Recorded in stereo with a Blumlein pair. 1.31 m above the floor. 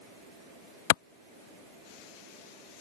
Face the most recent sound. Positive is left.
turn(degrees=50)